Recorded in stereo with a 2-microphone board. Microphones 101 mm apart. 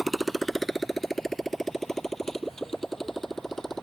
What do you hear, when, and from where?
0.0 s a motorcycle: centre (ahead or behind); by 3.8 s 5° left (ahead or behind)